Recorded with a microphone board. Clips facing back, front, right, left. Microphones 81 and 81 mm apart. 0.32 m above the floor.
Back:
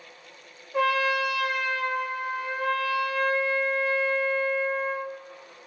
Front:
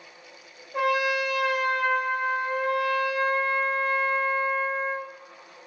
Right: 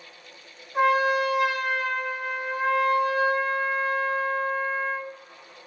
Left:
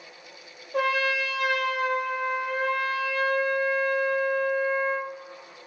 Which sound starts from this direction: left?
A trumpet, at 0.7 s.